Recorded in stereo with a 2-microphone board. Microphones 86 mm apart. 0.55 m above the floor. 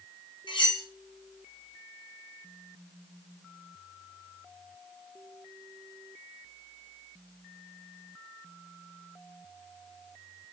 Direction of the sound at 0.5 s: 65° left (ahead or behind).